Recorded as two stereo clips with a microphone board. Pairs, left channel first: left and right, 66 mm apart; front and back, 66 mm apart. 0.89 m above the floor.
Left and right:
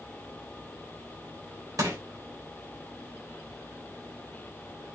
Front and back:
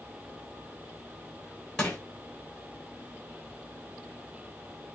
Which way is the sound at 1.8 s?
80° right.